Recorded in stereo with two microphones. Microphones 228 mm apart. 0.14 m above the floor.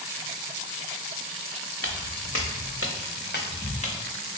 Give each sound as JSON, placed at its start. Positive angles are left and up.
{"t": 1.8, "sound": "footsteps", "side_deg": 70, "distance_m": 0.9}